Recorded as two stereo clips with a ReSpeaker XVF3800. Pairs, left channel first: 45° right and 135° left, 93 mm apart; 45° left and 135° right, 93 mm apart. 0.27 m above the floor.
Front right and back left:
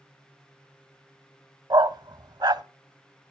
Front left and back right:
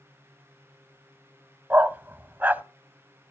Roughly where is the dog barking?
Behind.